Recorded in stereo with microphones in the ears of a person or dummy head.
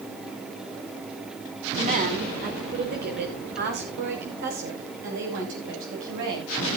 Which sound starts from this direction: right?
A woman speaking, at 1.8 s.